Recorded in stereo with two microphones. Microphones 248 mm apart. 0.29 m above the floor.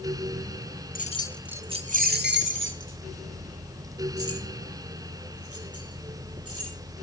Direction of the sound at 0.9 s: 35° left (ahead or behind).